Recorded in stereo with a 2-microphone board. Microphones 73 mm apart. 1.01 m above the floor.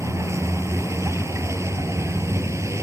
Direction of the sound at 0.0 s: 40° right (ahead or behind).